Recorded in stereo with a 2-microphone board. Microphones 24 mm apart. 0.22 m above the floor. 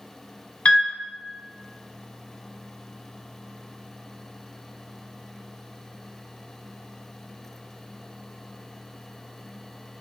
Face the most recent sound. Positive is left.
turn(degrees=50)  # may be behind; listen again after turning